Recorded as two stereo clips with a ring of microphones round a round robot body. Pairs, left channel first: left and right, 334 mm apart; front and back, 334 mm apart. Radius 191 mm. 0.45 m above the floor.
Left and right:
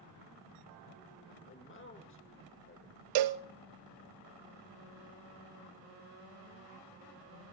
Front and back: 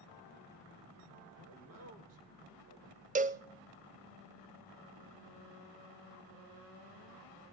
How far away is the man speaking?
About 1.8 m.